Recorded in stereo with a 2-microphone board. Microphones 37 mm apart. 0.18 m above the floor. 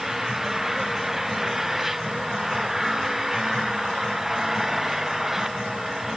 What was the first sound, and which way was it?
An engine running, 10° right (ahead or behind).